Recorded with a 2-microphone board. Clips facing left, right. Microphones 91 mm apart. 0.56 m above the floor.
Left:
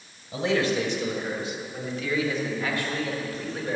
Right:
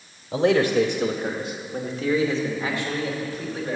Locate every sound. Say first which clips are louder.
0.3 s a man speaking: right 6 dB; 55° right (ahead or behind), 1.3 m; by 3.8 s 5° right (ahead or behind), 1.8 m